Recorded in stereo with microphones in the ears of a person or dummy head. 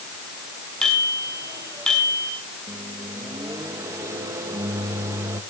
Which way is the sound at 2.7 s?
10° right (ahead or behind).